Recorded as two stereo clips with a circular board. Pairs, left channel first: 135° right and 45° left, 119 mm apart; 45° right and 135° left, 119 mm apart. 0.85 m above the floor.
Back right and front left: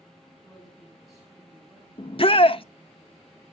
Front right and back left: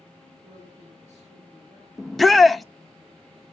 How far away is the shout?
About 0.5 m.